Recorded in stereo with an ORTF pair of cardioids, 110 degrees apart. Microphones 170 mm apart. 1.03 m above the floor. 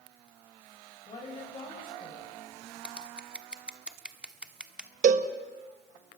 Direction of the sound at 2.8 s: 5° right.